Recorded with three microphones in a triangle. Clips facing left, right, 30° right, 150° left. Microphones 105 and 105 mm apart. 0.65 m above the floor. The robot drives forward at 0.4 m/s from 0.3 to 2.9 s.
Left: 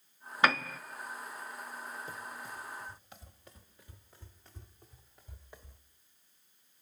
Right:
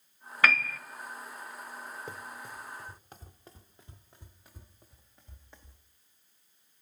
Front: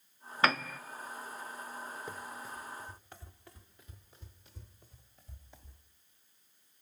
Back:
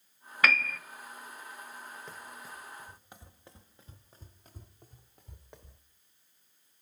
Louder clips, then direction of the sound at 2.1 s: Right 1 dB, front 3 dB; 110° right.